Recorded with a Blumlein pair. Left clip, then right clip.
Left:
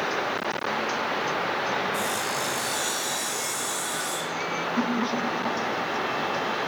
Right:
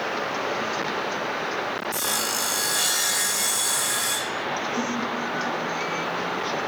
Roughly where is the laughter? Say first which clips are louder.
Even; ahead.